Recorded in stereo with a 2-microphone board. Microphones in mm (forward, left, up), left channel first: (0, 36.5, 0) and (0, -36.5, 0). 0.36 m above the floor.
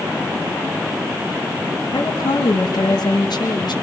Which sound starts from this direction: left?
A woman speaking, at 1.9 s.